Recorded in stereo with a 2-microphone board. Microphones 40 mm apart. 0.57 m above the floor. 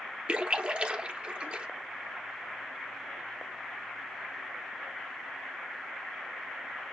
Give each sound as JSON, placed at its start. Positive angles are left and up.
{"t": 0.3, "sound": "a splash", "side_deg": -25, "distance_m": 0.7}